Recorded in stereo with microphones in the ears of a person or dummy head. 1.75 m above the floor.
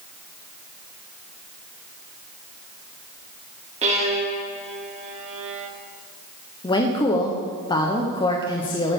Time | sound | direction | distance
3.8 | a violin | 45° right (ahead or behind) | 1.8 m
6.6 | a woman speaking | 35° left (ahead or behind) | 0.9 m